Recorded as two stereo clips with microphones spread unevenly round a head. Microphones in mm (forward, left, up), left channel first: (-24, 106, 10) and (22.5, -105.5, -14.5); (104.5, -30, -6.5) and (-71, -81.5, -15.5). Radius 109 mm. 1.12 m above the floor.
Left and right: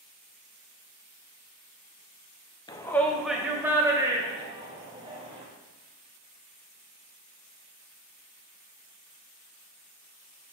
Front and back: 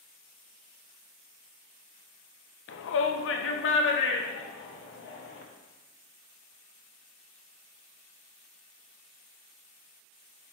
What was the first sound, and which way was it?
A shout, 25° left.